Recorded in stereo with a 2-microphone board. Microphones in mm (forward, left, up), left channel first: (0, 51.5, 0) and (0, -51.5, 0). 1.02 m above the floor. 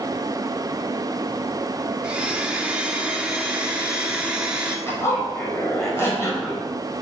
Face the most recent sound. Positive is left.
turn(degrees=25)  # may be behind; listen again after turning